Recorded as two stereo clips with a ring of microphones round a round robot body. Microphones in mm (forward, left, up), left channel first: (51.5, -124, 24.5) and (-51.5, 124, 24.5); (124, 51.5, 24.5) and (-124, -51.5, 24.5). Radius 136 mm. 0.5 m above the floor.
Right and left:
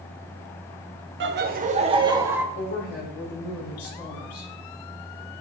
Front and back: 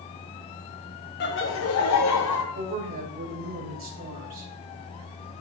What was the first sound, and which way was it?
Laughter, 70° left.